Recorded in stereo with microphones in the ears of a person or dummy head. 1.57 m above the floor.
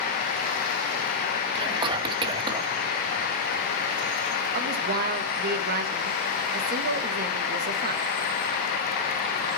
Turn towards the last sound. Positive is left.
turn(degrees=-50)  # may be behind; listen again after turning